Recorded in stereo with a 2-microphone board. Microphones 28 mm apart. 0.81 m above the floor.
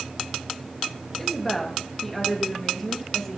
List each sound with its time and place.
1.2 s a woman speaking: 10° left (ahead or behind), 1.1 m